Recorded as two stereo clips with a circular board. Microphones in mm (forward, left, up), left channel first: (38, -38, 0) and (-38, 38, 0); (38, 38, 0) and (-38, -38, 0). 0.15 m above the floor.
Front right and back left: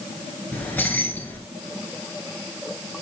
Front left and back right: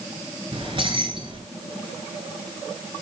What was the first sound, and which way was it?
Keys jangling, 115° right.